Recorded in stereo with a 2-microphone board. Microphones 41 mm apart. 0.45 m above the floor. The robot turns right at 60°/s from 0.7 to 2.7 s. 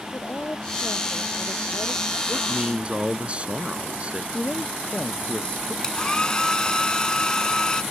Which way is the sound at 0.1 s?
45° left.